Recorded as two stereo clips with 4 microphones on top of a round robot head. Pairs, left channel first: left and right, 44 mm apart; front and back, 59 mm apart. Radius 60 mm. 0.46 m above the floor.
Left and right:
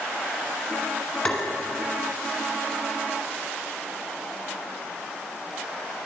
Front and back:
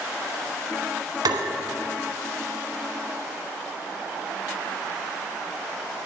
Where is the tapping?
170° left, 1.5 m.